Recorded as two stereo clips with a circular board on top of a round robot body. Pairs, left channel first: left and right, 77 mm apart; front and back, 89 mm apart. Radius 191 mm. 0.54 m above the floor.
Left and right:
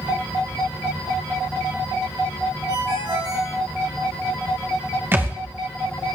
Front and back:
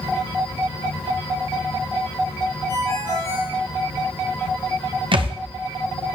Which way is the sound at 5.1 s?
155° right.